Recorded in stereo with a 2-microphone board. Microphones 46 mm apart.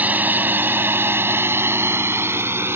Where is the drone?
40° right (ahead or behind); by 2.8 s 65° right (ahead or behind).